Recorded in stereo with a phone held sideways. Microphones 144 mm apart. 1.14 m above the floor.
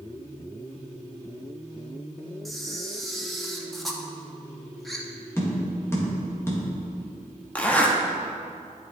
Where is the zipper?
10° left (ahead or behind), 0.9 m.